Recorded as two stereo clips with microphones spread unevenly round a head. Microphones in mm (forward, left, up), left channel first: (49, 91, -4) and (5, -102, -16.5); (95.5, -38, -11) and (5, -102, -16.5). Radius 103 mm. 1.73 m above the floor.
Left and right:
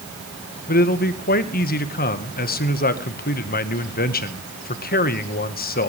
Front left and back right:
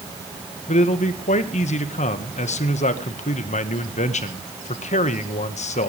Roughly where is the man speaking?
Ahead left.